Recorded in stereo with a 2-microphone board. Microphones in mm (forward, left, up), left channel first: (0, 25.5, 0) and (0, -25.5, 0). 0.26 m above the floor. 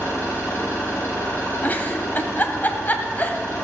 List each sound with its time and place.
0.0 s an engine running: 35° left (ahead or behind), 5 m
1.6 s a giggle: 35° left (ahead or behind), 1.1 m